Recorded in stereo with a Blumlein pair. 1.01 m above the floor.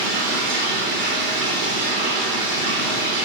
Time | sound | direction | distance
0.0 | running water | 40° right | 3.5 m